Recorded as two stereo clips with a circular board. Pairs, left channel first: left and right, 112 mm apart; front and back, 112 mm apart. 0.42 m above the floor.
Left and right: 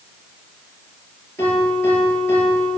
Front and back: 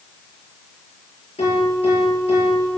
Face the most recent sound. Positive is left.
turn(degrees=25)